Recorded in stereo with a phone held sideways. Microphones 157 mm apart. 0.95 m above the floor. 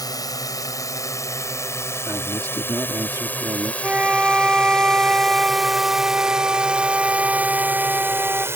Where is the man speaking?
20° right (ahead or behind).